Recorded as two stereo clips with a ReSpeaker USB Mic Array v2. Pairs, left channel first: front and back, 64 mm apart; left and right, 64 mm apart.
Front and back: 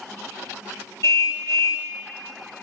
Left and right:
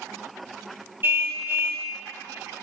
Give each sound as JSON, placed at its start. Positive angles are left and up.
{"t": 1.0, "sound": "a car horn", "azimuth_deg": -35, "distance_m": 3.0}